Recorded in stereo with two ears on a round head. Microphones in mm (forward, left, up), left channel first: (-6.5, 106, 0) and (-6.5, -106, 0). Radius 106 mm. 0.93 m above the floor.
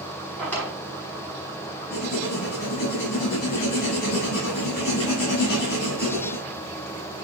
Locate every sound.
0.4 s a drawer: 5° left (ahead or behind), 5 m
1.9 s writing: 45° left (ahead or behind), 7 m